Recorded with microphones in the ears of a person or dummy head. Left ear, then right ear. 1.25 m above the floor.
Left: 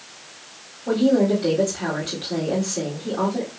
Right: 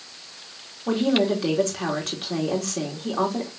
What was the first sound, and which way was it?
A woman speaking, 60° right (ahead or behind).